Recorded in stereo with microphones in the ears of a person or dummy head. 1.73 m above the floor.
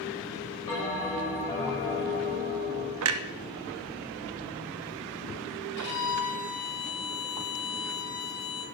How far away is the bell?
About 4.5 m.